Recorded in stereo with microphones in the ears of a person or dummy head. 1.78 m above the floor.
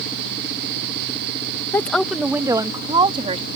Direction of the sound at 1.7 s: 20° left (ahead or behind).